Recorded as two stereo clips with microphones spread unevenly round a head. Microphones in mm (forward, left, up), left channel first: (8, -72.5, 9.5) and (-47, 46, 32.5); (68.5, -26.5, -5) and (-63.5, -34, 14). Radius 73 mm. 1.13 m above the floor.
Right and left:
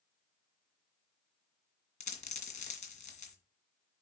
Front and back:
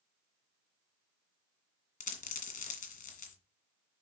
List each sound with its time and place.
2.0 s a dropped coin: 15° right, 2.0 m